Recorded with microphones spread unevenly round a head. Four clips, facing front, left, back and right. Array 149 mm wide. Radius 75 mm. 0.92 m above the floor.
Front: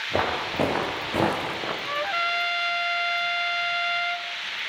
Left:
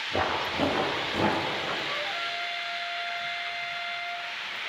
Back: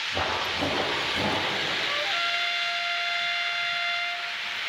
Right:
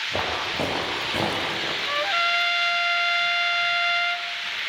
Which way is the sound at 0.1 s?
Straight ahead.